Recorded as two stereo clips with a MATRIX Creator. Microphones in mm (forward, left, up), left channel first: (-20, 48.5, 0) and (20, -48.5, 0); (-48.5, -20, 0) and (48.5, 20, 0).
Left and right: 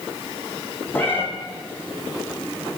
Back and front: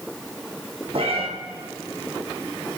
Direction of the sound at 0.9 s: 45° left.